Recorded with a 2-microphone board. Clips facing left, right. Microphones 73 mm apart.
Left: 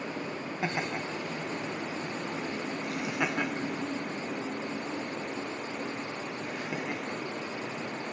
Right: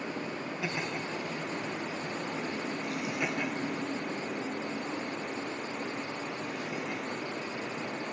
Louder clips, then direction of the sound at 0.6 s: Left 4 dB; 40° left (ahead or behind).